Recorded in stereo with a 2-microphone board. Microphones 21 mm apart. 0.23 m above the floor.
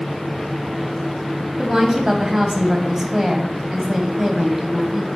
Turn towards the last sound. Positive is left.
turn(degrees=-20)  # may be behind; listen again after turning